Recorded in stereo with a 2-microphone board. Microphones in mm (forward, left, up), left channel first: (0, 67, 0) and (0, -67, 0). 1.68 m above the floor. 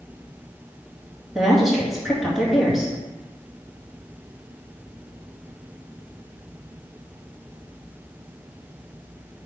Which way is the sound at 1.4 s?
Centre (ahead or behind).